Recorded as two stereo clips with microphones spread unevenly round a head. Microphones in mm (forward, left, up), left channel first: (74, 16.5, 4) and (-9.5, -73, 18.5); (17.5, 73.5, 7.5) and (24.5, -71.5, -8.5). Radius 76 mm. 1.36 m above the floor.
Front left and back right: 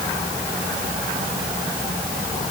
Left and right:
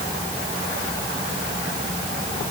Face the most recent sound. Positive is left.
No sound to turn to.